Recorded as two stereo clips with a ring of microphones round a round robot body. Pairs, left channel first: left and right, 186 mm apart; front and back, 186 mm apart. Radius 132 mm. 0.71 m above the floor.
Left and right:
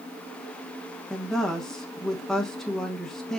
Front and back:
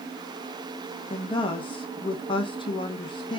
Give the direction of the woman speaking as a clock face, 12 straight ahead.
12 o'clock.